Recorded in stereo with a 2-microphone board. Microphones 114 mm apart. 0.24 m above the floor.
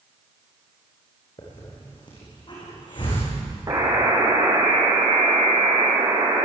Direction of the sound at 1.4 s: 40° left (ahead or behind).